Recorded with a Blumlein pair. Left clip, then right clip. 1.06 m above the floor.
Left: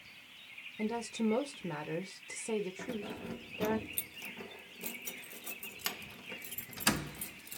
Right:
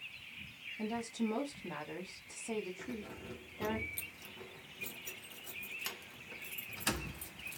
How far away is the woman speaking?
About 1.1 m.